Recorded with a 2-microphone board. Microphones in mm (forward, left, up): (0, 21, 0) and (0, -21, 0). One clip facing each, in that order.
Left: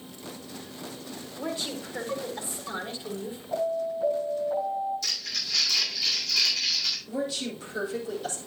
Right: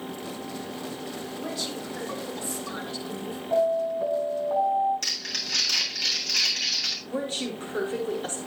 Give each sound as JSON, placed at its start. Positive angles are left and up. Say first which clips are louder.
{"t": 1.4, "sound": "a woman speaking", "louder": "left 3 dB", "side_deg": 25, "distance_m": 4.0}
{"t": 3.5, "sound": "an alarm", "louder": "right 5 dB", "side_deg": -30, "distance_m": 8.0}
{"t": 5.0, "sound": "crumpling", "louder": "right 1 dB", "side_deg": -60, "distance_m": 7.0}
{"t": 7.1, "sound": "a woman speaking", "louder": "right 2 dB", "side_deg": -40, "distance_m": 4.5}